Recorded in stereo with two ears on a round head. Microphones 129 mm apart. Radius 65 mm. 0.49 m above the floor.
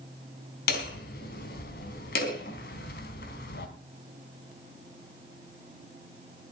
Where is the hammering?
70° left (ahead or behind), 4 m.